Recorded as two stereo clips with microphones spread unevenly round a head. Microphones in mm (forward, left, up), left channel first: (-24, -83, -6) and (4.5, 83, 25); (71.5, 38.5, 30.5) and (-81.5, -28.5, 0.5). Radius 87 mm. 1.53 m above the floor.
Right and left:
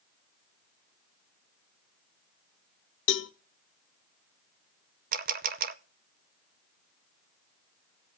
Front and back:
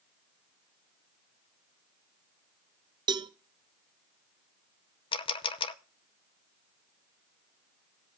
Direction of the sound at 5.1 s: 70° left.